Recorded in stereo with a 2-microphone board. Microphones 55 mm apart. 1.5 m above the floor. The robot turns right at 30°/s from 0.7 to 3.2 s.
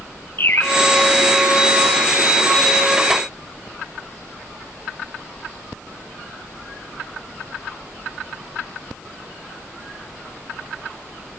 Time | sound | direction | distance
0.4 | a bird | 40° left (ahead or behind) | 5 m